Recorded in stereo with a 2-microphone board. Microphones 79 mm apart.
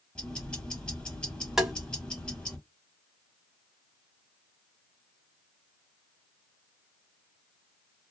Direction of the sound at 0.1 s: 10° left (ahead or behind).